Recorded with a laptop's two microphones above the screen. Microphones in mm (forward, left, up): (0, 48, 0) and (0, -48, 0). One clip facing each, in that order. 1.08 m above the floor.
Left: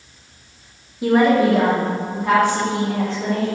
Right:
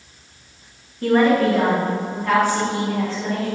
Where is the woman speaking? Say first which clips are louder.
Left 1 dB; 10° left (ahead or behind), 0.7 m; by 3.5 s 25° left (ahead or behind), 2 m.